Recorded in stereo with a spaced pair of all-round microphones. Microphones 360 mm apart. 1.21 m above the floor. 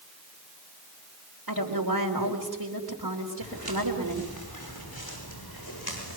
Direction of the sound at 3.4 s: 80° left.